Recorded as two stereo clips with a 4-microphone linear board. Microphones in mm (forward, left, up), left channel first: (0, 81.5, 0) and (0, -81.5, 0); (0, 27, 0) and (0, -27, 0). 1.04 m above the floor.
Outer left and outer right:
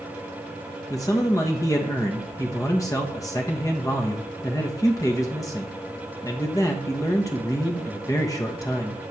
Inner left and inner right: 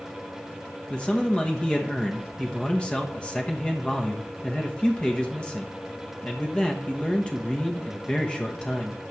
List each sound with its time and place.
0.9 s a man speaking: 20° left (ahead or behind), 1.2 m